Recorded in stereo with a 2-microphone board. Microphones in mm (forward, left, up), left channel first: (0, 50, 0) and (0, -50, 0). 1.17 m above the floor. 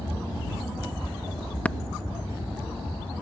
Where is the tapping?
15° left (ahead or behind).